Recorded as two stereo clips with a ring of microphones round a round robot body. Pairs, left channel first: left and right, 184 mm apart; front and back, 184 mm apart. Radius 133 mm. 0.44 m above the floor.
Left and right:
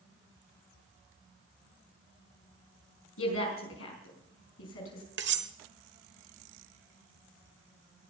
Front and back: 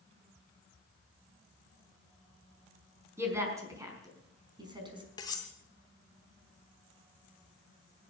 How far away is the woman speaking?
About 5 m.